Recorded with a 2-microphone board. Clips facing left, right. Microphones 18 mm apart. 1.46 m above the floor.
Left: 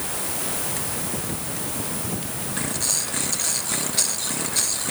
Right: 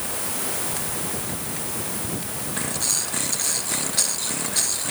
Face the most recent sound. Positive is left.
No sound to turn to.